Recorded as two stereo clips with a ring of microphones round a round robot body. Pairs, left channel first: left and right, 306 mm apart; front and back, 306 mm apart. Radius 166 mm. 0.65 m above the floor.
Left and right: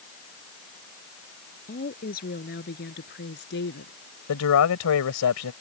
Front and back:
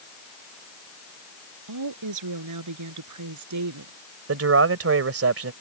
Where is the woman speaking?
155° left; by 3.9 s 150° left.